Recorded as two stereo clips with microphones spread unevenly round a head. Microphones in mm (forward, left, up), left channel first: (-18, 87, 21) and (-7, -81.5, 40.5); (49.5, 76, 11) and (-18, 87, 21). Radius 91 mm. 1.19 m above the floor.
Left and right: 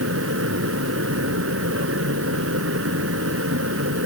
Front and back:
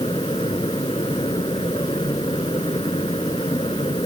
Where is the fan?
70° right.